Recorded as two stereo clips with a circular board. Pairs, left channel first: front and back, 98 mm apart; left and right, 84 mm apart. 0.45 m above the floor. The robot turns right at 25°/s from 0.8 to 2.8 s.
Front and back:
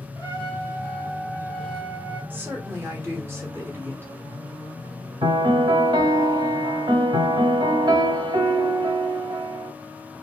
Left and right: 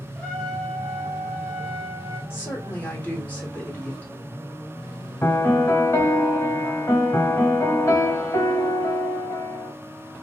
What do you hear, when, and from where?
0.1 s a trumpet: straight behind, 1.9 m; by 2.2 s 145° right, 1.9 m
2.3 s a woman speaking: 125° left, 0.9 m; by 4.1 s 140° left, 0.9 m
5.2 s a piano: 145° left, 0.8 m